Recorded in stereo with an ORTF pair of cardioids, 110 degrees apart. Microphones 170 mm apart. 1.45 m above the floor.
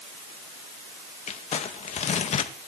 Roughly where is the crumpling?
Ahead left.